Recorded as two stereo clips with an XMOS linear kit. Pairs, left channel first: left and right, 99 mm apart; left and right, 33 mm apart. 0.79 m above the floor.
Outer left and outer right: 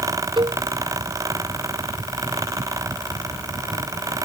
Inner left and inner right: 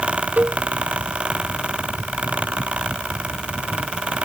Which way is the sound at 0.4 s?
55° right (ahead or behind).